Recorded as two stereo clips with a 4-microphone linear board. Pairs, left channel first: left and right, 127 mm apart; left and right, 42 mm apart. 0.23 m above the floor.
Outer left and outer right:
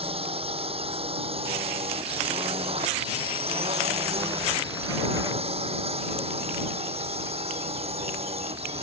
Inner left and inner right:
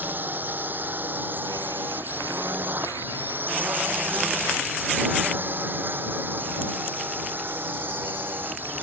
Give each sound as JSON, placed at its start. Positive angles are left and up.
{"t": 0.0, "sound": "a drone", "side_deg": -50}